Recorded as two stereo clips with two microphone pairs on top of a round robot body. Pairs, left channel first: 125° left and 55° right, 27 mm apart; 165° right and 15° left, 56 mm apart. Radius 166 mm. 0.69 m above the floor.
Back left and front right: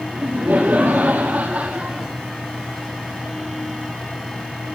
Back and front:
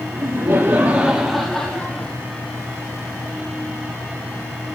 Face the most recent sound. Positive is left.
turn(degrees=-100)